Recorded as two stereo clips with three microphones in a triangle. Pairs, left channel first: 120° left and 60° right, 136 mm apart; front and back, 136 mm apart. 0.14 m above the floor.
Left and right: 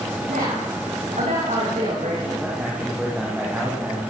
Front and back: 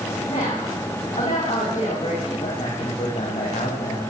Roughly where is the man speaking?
Ahead.